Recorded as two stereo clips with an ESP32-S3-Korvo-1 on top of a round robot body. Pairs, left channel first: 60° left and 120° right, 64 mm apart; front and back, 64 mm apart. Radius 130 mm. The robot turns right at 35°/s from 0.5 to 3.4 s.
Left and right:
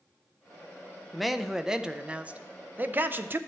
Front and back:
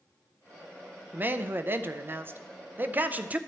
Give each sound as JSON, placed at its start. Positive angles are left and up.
{"t": 1.1, "sound": "a man speaking", "azimuth_deg": 150, "distance_m": 0.7}